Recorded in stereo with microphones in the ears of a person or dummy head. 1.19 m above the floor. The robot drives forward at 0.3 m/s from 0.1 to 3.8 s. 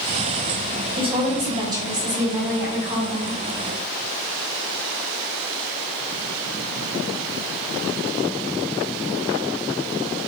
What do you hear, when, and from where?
1.0 s a woman speaking: 25° right (ahead or behind), 1.1 m; by 3.4 s 15° right (ahead or behind), 1.8 m